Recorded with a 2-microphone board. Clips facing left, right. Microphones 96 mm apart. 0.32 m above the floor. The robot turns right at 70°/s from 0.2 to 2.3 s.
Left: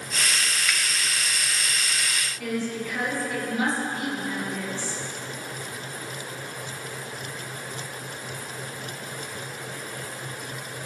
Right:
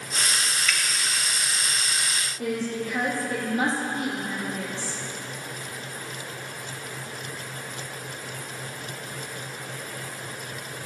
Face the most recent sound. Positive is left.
turn(degrees=-35)  # may be behind; listen again after turning